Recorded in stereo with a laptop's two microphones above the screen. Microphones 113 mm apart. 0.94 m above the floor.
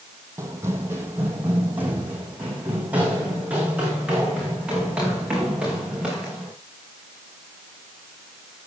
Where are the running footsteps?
25° right (ahead or behind), 2 m; by 6.5 s 5° right (ahead or behind), 6 m.